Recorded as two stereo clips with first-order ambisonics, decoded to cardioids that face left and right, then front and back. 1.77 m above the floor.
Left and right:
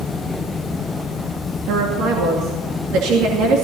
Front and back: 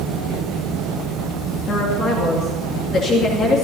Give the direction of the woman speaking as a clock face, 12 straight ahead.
2 o'clock.